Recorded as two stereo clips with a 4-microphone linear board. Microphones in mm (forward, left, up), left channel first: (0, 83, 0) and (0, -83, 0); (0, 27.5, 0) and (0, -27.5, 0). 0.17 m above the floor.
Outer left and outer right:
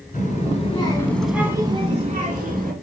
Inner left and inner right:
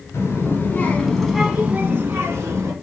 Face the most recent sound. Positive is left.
turn(degrees=-60)  # may be behind; listen again after turning